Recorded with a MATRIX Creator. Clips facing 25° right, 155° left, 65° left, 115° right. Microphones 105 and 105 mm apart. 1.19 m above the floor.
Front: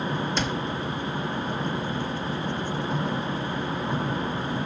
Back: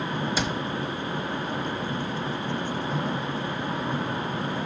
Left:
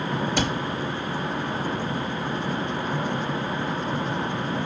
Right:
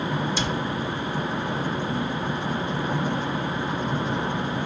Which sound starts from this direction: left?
A cupboard door, at 0.4 s.